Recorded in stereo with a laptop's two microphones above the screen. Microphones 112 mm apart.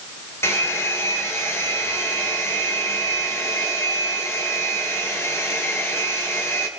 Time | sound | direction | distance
0.4 | a hair dryer | 20° left (ahead or behind) | 3 m